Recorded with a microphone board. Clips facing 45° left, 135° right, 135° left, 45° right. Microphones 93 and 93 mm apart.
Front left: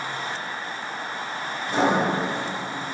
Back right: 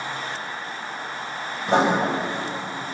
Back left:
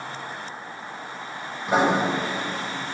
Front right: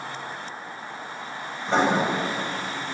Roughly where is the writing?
Behind right.